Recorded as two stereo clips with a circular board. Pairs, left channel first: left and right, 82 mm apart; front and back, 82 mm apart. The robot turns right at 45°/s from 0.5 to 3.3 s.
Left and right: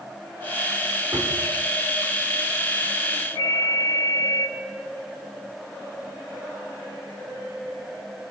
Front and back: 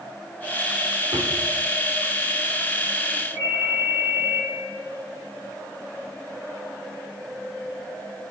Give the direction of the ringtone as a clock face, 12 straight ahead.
5 o'clock.